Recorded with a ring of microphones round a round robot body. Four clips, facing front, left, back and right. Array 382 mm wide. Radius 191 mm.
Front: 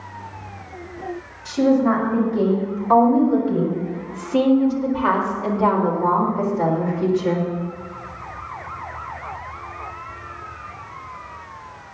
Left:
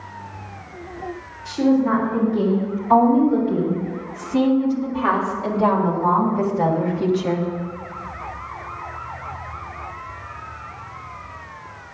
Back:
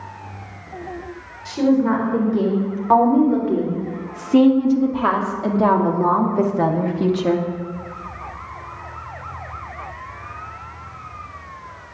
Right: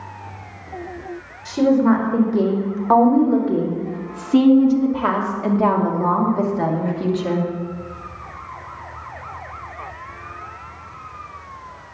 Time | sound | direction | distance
1.4 | a woman speaking | 110° right | 4 m